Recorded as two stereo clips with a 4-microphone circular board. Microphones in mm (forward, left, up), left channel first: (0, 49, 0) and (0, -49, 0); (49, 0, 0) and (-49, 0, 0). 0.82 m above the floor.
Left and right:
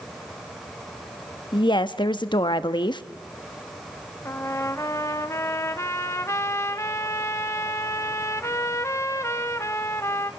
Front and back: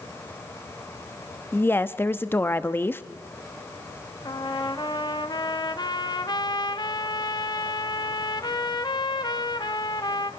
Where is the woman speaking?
65° left, 1.0 m.